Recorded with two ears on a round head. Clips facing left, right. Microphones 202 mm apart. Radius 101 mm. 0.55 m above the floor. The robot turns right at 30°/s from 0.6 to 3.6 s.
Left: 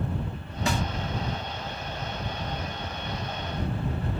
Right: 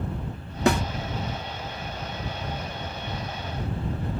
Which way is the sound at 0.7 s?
45° right (ahead or behind).